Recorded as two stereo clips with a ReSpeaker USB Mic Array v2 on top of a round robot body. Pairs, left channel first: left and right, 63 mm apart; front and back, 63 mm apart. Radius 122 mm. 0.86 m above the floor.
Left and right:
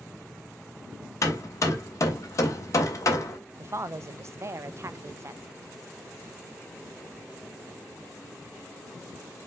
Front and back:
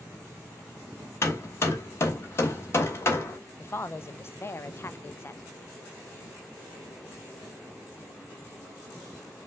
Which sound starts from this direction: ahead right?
A woman speaking, at 3.6 s.